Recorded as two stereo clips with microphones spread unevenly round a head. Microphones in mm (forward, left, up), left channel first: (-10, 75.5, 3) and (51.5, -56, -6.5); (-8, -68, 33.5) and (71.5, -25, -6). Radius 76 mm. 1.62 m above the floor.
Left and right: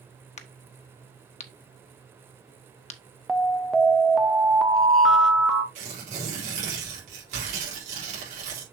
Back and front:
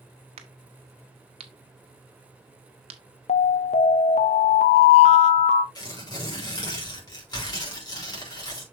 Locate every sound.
0.4 s a crack: 70° left, 1.0 m
3.3 s an alarm: 155° right, 0.7 m
5.8 s tearing paper: 115° right, 4 m